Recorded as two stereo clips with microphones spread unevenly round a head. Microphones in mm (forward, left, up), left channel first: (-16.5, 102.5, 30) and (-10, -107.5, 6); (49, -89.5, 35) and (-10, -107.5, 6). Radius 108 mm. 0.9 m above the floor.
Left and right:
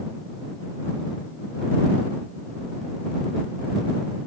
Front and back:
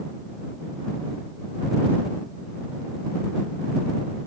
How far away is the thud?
No thud in this recording.